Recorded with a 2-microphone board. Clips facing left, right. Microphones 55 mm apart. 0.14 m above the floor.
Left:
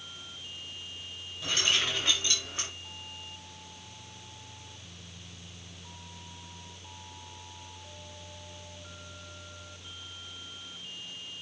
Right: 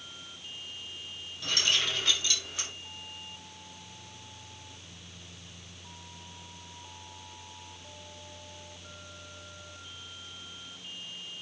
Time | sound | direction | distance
1.4 | keys jangling | 15° left (ahead or behind) | 4.5 m